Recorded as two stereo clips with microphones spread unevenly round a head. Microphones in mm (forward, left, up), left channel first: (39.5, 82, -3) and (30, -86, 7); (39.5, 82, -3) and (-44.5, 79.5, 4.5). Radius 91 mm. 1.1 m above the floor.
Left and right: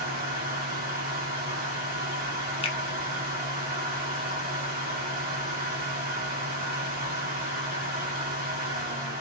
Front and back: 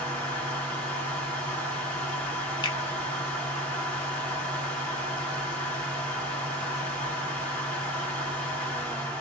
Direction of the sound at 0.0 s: 65° right.